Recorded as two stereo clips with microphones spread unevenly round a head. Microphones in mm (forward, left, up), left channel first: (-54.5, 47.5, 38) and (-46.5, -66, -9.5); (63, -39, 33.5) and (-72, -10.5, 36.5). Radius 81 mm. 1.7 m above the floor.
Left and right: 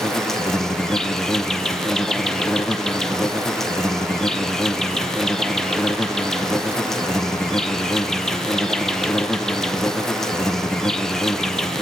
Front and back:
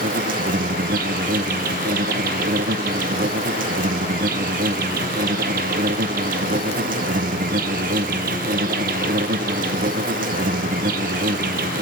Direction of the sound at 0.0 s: 160° left.